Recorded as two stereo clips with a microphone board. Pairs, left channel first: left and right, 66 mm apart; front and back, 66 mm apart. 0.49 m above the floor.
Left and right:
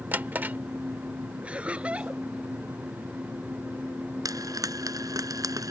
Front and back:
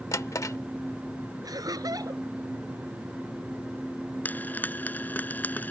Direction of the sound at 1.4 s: 160° right.